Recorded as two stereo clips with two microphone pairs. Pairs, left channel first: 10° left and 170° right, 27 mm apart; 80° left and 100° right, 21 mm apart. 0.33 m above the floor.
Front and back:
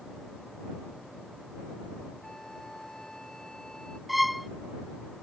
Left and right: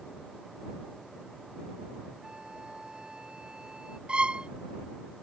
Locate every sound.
2.2 s a flute: 60° right
4.1 s a violin: 85° right